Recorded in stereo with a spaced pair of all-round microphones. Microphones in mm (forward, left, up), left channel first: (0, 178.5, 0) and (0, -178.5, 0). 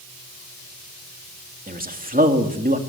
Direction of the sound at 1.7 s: 25° right (ahead or behind).